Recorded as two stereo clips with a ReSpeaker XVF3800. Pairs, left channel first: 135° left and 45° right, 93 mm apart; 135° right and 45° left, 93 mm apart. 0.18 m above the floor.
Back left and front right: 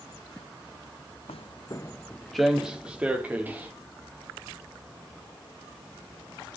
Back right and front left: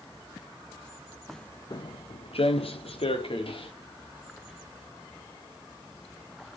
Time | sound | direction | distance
1.3 | footsteps | 135° left | 0.7 m